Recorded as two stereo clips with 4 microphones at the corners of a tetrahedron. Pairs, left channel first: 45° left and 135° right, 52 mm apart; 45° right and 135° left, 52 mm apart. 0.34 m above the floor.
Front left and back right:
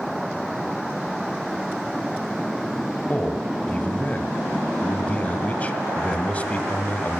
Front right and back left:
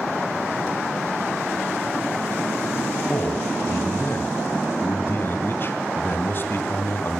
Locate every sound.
3.1 s a man speaking: 10° right, 2.5 m